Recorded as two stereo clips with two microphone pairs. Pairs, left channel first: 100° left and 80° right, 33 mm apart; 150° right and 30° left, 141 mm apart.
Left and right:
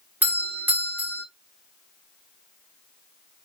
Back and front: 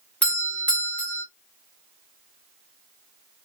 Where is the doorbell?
70° right, 2.5 m.